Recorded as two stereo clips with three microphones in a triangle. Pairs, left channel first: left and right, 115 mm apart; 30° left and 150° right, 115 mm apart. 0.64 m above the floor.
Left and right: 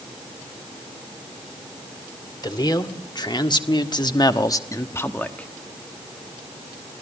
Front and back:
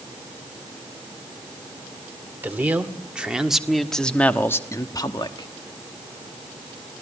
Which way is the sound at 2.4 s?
140° left.